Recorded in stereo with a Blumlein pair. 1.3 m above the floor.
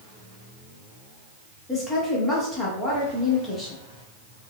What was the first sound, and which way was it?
A woman speaking, 15° left.